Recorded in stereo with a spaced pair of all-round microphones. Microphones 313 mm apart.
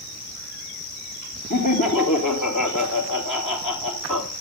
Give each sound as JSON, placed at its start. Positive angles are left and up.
{"t": 1.5, "sound": "laughter", "side_deg": 75, "distance_m": 2.0}